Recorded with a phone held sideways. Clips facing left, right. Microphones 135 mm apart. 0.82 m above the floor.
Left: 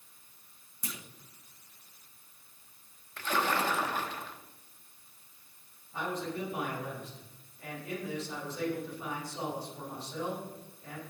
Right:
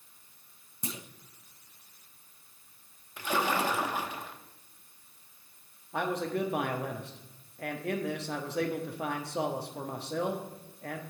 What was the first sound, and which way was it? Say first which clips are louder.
A clunk: right 5 dB; 25° right (ahead or behind).